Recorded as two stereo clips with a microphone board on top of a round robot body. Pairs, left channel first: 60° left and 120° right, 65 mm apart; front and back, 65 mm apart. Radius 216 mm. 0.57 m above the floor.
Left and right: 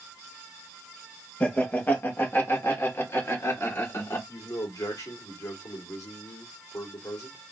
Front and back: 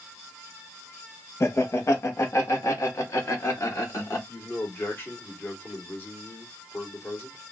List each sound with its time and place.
1.4 s laughter: 5° left, 1.4 m; by 4.2 s 35° left, 2.5 m
4.3 s a man speaking: 55° left, 2 m